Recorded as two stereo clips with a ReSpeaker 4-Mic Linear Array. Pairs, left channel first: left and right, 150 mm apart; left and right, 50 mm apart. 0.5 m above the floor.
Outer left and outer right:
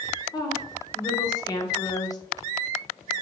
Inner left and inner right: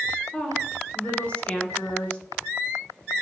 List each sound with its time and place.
0.3 s a woman speaking: 25° left (ahead or behind), 0.9 m